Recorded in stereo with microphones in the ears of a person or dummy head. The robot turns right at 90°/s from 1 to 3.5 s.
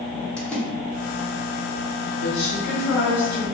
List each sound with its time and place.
0.4 s a splash: 5° left (ahead or behind), 0.6 m
2.2 s a woman speaking: 35° left, 1.6 m; by 3.4 s 145° left, 1.6 m